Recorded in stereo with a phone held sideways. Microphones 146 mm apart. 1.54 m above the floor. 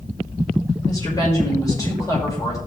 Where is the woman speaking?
25° left (ahead or behind), 6 m.